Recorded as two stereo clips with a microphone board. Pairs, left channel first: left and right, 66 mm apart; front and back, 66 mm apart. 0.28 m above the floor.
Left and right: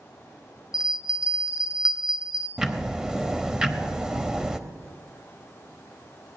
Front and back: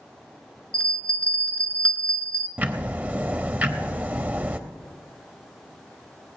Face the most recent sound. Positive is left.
turn(degrees=-155)